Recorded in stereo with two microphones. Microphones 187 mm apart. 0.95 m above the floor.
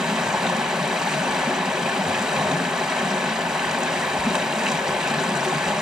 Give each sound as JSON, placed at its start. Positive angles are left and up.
{"t": 0.0, "sound": "running water", "side_deg": -5, "distance_m": 0.7}